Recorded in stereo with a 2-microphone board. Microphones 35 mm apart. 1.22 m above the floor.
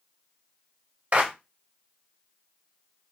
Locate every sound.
1.1 s a clap: 40° right (ahead or behind), 0.8 m